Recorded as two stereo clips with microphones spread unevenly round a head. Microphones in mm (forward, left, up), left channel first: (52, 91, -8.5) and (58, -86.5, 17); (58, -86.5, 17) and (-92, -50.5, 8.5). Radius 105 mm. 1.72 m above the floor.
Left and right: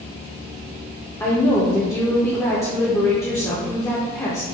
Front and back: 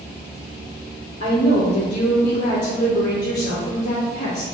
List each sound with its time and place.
1.2 s a woman speaking: 15° left, 0.7 m